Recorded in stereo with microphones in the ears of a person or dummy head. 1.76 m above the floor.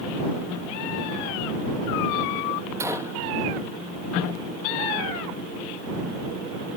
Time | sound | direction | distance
2.8 | a gunshot | 15° right (ahead or behind) | ?